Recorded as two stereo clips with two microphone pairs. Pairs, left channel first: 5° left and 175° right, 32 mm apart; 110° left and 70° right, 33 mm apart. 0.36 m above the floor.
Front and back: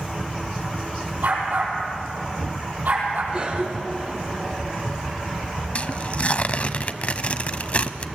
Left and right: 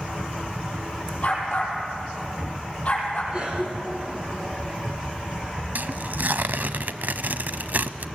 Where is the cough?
125° right, 3.5 m.